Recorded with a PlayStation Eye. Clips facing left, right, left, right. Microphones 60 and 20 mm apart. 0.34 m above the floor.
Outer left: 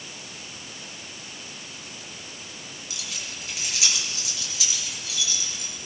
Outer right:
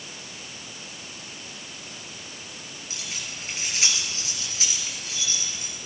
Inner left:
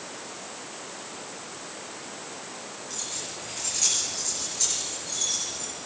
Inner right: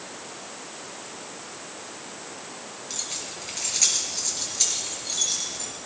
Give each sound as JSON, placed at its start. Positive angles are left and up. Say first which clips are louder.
{"t": 2.9, "sound": "keys jangling", "louder": "outer right 1 dB, inner right 2 dB", "side_deg": -35, "distance_m": 4.5}